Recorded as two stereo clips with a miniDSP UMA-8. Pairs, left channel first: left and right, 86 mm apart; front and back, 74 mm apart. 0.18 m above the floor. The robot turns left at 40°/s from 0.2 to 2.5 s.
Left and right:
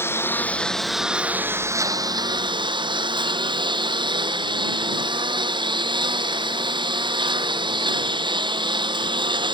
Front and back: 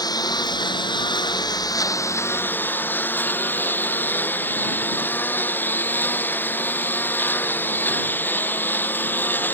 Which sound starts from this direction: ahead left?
A lawn mower, at 0.0 s.